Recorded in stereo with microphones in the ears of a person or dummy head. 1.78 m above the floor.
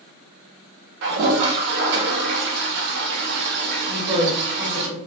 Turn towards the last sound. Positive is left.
turn(degrees=-20)  # may be behind; listen again after turning